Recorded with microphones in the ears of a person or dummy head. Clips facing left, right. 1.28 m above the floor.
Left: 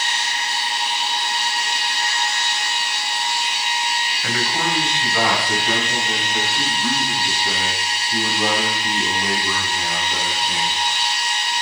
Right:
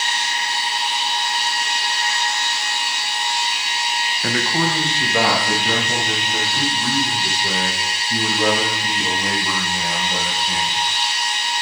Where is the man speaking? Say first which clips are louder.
Right 3 dB; 35° right (ahead or behind), 0.6 m; by 10.8 s 40° right (ahead or behind), 6.5 m.